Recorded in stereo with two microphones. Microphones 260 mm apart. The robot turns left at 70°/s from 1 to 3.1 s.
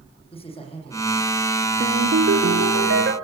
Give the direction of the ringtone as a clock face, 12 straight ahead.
1 o'clock.